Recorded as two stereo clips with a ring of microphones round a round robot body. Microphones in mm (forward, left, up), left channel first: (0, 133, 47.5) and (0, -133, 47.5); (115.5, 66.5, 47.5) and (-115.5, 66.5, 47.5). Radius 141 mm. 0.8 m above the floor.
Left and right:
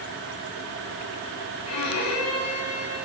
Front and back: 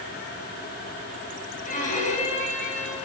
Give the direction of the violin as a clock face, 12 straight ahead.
10 o'clock.